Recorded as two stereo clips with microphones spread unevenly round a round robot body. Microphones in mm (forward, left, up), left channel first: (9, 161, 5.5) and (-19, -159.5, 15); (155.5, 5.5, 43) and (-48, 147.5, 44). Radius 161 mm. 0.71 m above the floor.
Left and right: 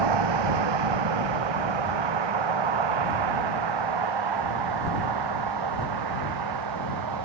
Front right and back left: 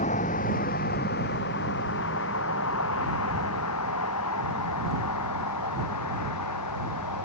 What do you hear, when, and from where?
0.0 s a vehicle: 105° right; by 7.3 s 65° right